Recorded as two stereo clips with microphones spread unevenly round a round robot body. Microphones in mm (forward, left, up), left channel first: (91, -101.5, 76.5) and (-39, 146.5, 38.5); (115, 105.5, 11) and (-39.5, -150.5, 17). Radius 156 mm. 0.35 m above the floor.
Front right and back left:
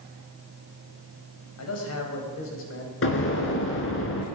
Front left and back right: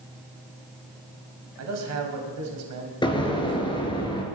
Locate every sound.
1.6 s a man speaking: 95° right, 3 m; by 2.9 s 110° right, 3 m
3.0 s an explosion: 15° right, 3.5 m